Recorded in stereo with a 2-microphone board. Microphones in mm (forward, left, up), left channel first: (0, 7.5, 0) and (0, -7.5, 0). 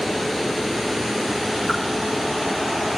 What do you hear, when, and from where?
1.7 s a whoosh: 10° right (ahead or behind), 4.5 m